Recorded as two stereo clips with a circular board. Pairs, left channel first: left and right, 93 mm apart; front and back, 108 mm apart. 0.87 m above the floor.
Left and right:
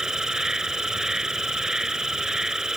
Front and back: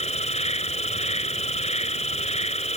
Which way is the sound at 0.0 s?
5° right.